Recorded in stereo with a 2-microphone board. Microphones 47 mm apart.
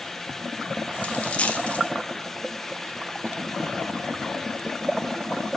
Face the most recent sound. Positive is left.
turn(degrees=30)  # may be behind; listen again after turning